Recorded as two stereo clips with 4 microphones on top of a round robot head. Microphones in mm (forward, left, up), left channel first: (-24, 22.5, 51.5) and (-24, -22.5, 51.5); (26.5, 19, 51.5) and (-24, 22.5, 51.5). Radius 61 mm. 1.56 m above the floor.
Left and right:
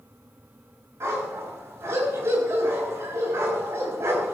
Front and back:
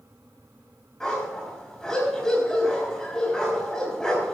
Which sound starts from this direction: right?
A dog barking, at 1.0 s.